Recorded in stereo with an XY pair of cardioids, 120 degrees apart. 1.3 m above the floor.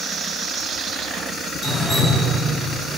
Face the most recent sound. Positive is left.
turn(degrees=20)